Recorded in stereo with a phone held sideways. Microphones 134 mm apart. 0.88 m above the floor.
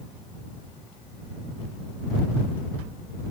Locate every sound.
Only background noise.